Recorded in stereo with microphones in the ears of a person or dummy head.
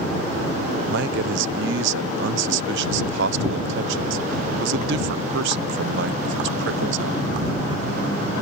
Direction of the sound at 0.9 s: 75° right (ahead or behind).